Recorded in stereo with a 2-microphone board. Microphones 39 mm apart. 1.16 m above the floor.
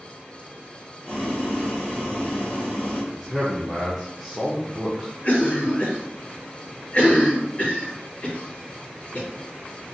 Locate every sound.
1.0 s boiling: 30° left (ahead or behind), 0.9 m
3.1 s a man speaking: 5° left (ahead or behind), 0.5 m
5.2 s a cough: 40° left (ahead or behind), 1.1 m